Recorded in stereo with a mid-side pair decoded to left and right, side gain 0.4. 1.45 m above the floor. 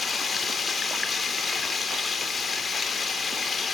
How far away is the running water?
About 3 m.